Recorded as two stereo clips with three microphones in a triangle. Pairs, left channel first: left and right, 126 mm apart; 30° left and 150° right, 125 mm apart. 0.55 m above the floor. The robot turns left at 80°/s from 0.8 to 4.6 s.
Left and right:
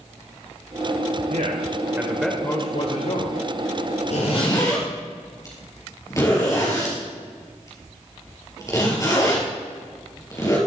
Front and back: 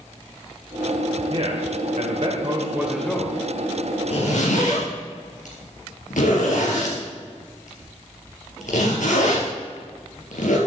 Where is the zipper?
65° left, 3.5 m; by 10.6 s 25° left, 3.5 m.